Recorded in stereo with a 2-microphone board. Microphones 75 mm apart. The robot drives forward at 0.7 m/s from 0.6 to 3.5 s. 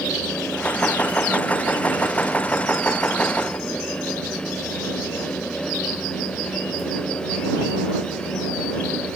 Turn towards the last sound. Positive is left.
No sound to turn to.